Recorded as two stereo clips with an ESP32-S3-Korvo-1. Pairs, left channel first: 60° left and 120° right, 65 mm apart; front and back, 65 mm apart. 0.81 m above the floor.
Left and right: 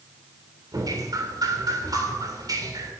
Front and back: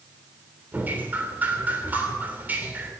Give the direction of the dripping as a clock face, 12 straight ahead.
4 o'clock.